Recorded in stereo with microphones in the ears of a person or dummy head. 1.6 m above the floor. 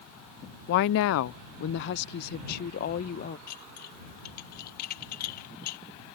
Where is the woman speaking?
50° left (ahead or behind); by 3.4 s 45° left (ahead or behind).